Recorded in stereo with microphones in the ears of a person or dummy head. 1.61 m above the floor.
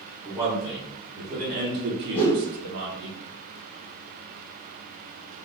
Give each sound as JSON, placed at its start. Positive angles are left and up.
{"t": 0.2, "sound": "a man speaking", "side_deg": -15, "distance_m": 1.2}
{"t": 2.1, "sound": "a whoosh", "side_deg": 15, "distance_m": 1.4}